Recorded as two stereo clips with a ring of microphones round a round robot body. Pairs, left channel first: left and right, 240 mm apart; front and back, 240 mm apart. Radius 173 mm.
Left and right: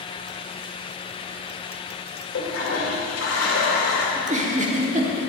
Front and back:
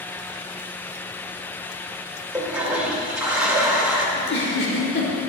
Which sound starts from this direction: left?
A toilet flushing, at 2.3 s.